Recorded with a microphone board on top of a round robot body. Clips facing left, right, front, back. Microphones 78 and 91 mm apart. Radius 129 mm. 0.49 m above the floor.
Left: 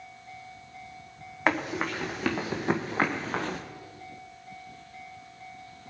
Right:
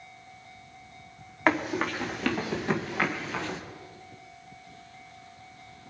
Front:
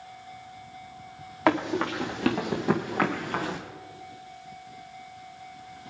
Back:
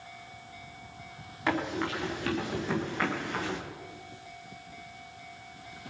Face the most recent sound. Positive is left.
turn(degrees=50)